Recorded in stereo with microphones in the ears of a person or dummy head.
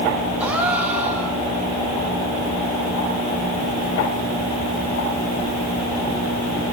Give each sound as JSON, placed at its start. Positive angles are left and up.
{"t": 0.4, "sound": "a gasp", "side_deg": -10, "distance_m": 3.0}